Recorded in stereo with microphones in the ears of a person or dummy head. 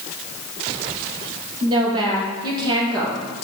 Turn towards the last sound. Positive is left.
turn(degrees=-30)  # may be behind; listen again after turning